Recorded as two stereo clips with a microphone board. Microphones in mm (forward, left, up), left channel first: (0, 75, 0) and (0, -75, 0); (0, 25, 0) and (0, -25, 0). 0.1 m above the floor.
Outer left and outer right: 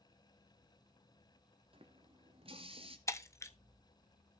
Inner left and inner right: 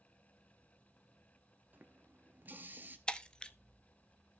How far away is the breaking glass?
About 0.7 m.